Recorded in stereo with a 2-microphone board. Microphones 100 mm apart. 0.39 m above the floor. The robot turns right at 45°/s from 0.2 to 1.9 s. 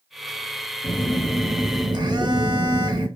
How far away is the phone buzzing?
About 0.5 m.